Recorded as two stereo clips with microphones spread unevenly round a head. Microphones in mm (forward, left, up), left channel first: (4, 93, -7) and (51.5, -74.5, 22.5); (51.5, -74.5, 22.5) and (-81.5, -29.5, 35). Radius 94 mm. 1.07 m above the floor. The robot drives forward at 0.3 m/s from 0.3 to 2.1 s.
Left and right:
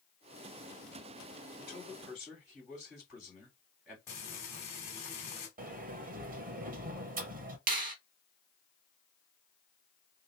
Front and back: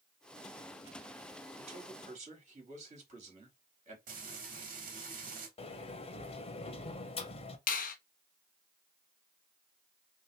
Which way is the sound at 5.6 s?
40° right.